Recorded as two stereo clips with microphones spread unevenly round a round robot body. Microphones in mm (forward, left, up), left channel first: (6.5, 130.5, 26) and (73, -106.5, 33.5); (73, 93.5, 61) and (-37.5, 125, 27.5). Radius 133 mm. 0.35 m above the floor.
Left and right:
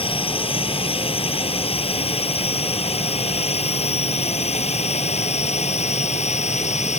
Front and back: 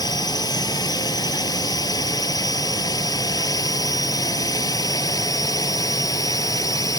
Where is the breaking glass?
No breaking glass in this recording.